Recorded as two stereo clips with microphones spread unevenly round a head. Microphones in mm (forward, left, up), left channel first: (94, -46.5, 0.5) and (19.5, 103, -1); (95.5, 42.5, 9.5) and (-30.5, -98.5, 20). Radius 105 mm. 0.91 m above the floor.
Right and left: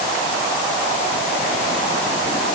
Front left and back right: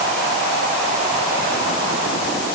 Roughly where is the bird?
I don't hear a bird.